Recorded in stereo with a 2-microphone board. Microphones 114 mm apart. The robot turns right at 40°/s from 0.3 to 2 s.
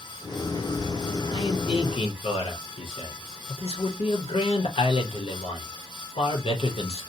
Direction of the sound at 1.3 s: 45° left (ahead or behind).